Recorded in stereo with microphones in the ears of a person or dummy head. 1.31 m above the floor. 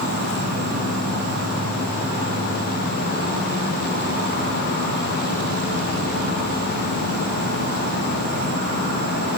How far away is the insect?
About 1.0 m.